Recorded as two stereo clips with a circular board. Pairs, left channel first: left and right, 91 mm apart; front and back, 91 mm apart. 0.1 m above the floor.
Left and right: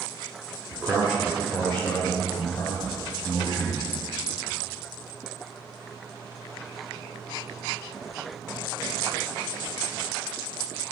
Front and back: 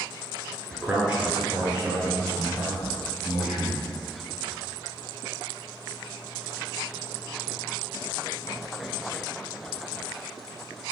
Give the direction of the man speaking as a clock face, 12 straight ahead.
4 o'clock.